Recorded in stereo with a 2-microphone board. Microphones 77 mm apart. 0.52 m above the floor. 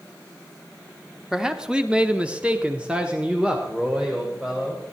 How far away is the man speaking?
About 1.0 m.